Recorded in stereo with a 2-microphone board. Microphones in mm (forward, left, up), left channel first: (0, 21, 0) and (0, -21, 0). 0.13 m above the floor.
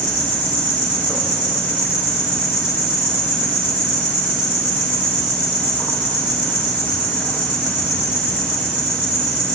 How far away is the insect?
About 3 m.